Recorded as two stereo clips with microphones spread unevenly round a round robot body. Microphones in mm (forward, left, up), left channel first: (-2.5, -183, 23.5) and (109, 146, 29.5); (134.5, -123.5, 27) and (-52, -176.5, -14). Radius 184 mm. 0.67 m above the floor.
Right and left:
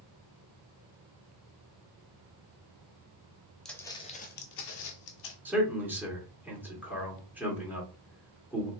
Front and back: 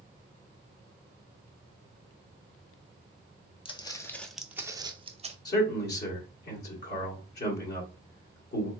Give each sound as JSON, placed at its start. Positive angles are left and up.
{"t": 3.6, "sound": "footsteps", "azimuth_deg": -20, "distance_m": 0.9}
{"t": 5.5, "sound": "a man speaking", "azimuth_deg": -15, "distance_m": 1.7}